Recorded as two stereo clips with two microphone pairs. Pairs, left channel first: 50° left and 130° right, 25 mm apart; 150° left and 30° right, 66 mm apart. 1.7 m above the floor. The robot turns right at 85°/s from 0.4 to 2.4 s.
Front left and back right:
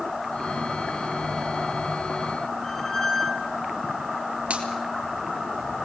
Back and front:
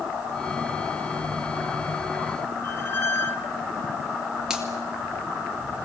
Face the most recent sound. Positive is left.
turn(degrees=-115)